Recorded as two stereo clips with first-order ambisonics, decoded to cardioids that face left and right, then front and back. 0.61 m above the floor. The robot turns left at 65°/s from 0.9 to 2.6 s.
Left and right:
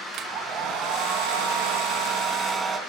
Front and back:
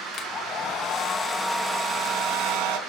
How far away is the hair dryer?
About 2 m.